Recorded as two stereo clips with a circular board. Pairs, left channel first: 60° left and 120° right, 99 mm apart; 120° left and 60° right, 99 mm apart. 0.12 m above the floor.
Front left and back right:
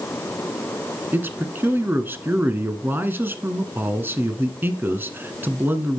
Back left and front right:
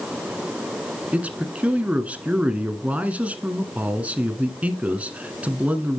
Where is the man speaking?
110° right, 1.2 m.